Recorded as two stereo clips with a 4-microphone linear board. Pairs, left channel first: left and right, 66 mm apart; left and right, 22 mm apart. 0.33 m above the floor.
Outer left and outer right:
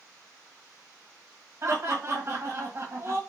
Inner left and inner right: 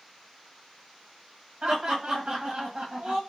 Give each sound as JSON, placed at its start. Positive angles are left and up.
{"t": 1.6, "sound": "laughter", "side_deg": -45, "distance_m": 1.6}